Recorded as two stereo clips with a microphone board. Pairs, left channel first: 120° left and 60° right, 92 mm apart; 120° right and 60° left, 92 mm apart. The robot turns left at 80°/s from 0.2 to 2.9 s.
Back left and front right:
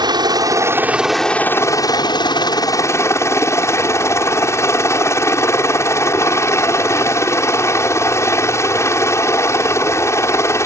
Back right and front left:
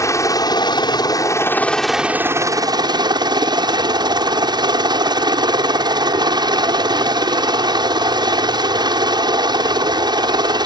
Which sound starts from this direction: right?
A helicopter, at 0.0 s.